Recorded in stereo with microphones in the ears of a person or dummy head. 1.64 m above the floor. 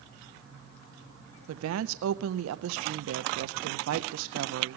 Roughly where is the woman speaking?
Right.